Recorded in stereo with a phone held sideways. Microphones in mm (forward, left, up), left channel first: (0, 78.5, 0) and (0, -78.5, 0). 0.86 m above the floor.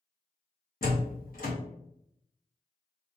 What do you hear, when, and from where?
0.8 s a door slam: 65° left (ahead or behind), 0.9 m